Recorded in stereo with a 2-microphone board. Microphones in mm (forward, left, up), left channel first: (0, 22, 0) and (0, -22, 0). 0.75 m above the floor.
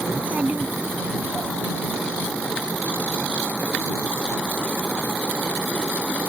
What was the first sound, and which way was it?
A child speaking, 30° right (ahead or behind).